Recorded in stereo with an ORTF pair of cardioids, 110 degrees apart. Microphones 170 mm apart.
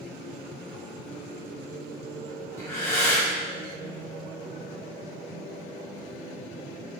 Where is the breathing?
15° left, 1.4 m.